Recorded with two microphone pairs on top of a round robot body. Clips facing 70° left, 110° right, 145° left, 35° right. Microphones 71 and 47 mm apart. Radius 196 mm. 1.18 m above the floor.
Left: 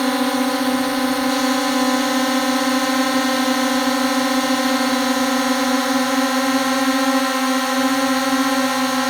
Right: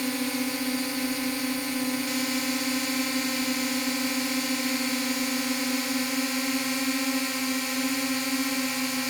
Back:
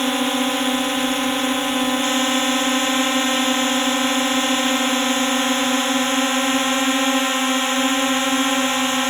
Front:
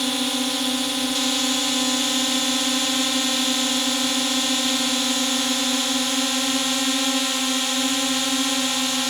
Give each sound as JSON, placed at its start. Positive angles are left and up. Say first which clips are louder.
{"t": 0.0, "sound": "a drone", "louder": "left 11 dB, back 4 dB", "azimuth_deg": 90}